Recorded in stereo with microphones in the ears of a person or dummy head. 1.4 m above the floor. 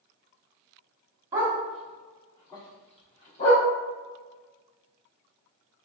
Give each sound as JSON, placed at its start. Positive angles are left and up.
{"t": 1.3, "sound": "a dog barking", "side_deg": -15, "distance_m": 1.2}